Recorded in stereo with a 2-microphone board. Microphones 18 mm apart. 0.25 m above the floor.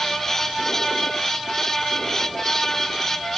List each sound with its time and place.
Only background noise.